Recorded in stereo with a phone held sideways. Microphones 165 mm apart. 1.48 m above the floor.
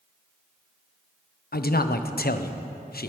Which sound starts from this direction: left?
A man speaking, at 1.5 s.